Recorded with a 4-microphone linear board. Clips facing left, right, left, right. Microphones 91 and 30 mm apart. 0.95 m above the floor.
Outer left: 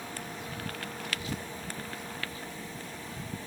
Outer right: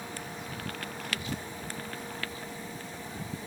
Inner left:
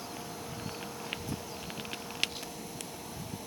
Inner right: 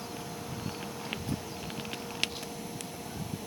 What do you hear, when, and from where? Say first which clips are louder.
1.0 s a child speaking: even, inner right 3 dB; 50° right (ahead or behind), 2 m; by 3.4 s 40° right (ahead or behind), 3.5 m